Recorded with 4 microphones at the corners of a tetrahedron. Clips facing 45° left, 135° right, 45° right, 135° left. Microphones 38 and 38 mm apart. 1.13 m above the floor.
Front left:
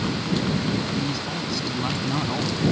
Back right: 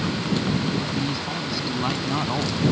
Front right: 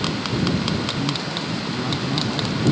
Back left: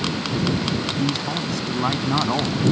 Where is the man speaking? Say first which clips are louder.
Even, back left 1 dB; 145° left.